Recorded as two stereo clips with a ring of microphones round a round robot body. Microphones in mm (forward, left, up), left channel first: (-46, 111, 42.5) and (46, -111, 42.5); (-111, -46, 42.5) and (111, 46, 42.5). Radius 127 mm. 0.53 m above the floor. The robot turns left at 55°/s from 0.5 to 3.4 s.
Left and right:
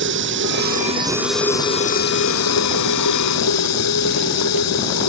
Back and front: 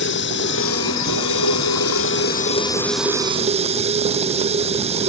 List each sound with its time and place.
0.0 s running water: 110° right; by 5.1 s 90° left